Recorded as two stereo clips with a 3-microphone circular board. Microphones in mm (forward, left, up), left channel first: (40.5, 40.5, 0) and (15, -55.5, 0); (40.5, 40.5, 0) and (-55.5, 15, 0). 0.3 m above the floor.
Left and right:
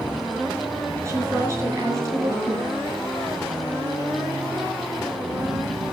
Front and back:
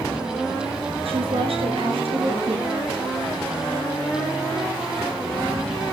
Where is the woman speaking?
160° right, 5.5 m.